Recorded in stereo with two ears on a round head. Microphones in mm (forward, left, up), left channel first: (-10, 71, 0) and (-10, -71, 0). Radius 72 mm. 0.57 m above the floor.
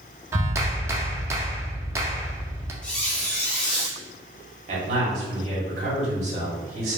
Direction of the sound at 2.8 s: 5° left (ahead or behind).